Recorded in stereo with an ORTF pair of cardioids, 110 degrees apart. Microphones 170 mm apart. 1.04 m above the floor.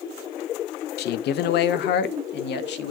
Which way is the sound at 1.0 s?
70° left.